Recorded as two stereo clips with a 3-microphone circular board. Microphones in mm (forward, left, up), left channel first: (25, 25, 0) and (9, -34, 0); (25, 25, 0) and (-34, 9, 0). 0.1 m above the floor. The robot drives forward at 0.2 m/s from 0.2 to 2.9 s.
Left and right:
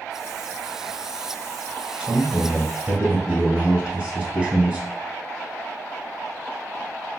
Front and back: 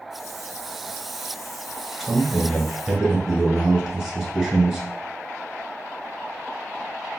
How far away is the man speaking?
About 1.1 m.